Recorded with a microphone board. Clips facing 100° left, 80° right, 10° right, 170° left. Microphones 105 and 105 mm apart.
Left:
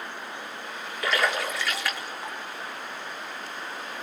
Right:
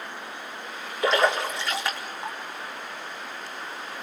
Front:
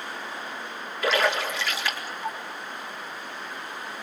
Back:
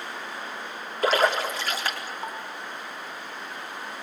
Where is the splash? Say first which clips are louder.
Right 4 dB, back 2 dB; 140° right, 4 m.